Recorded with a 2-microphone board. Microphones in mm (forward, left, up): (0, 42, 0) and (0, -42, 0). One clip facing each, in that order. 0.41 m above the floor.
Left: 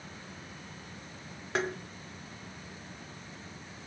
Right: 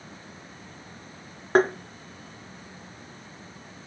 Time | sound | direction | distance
1.6 | tapping | 45° right (ahead or behind) | 0.5 m